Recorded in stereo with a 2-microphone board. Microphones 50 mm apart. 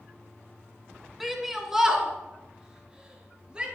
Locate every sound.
1.2 s a shout: centre (ahead or behind), 3.5 m; by 3.6 s 20° right (ahead or behind), 7 m